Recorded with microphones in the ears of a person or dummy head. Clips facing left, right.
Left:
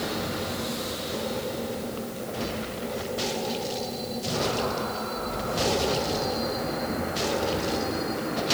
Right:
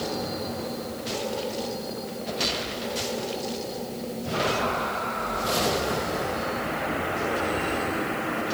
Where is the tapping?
No tapping in this recording.